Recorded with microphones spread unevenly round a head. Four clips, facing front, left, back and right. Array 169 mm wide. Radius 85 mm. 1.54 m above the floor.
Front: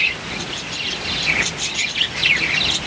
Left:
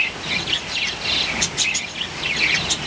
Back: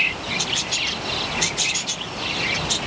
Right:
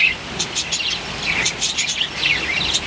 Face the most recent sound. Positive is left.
No sound to turn to.